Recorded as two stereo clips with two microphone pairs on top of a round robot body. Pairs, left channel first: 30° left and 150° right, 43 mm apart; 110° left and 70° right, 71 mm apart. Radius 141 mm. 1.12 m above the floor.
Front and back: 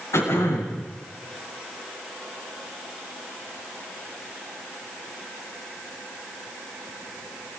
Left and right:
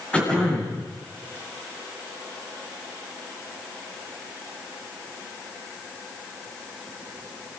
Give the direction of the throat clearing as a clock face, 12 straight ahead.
11 o'clock.